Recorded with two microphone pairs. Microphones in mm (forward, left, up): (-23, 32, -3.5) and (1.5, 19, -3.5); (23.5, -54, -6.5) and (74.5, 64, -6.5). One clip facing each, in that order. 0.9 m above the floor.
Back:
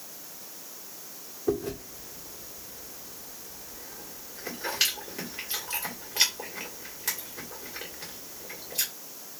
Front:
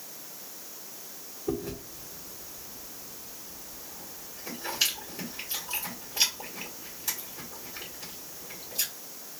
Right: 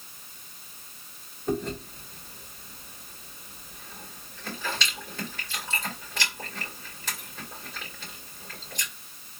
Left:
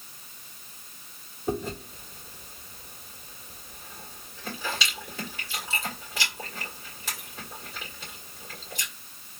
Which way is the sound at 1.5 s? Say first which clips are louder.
Back 4 dB, right 1 dB; 150° left.